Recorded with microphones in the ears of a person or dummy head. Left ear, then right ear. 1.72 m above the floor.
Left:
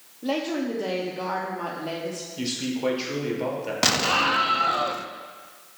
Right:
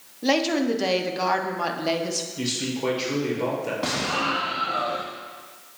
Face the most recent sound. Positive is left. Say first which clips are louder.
# left 6 dB
turn(degrees=75)  # may be behind; listen again after turning